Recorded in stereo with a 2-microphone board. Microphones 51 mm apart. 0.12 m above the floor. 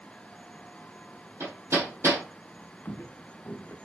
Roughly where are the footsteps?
Left.